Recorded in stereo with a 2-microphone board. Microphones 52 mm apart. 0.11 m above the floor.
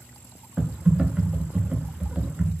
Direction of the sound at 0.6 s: 15° right (ahead or behind).